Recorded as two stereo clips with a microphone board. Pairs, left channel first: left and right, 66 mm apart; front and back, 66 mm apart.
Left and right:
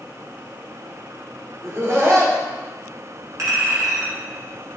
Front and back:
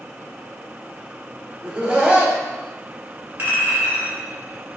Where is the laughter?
115° right, 1.0 m.